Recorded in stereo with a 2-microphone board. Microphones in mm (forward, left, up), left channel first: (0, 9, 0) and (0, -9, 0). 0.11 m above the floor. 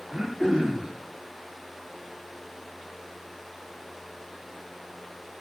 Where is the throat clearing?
40° right (ahead or behind), 8.5 m.